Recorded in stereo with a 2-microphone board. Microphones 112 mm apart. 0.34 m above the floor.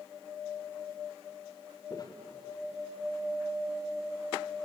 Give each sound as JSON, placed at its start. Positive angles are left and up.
{"t": 1.9, "sound": "footsteps", "side_deg": 35, "distance_m": 3.0}